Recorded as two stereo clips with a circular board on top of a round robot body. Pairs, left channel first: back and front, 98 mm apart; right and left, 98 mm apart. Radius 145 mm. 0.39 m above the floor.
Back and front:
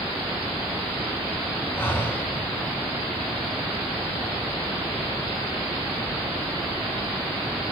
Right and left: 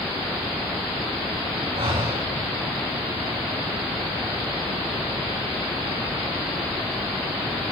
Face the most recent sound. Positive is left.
turn(degrees=110)